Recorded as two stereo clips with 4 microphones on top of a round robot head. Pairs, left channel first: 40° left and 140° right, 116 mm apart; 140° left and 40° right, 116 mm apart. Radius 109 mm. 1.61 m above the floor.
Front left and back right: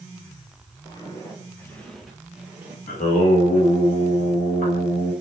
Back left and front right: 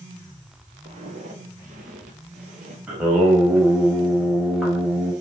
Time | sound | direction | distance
0.8 | footsteps | 10° right | 2.5 m
2.9 | singing | 40° left | 4 m